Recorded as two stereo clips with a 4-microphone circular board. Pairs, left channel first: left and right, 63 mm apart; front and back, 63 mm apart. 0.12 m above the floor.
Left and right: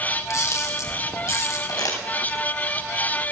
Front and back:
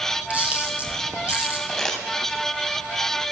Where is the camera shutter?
115° left, 2.5 m.